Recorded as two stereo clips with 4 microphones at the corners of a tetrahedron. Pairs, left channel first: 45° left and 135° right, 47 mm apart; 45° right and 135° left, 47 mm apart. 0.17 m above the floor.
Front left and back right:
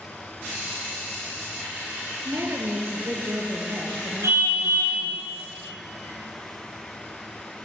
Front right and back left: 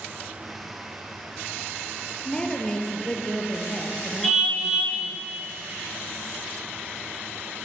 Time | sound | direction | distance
2.2 | a woman speaking | 115° right | 4 m
4.2 | a car horn | 135° right | 7.5 m